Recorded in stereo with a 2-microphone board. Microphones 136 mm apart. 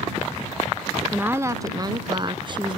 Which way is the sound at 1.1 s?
15° right (ahead or behind).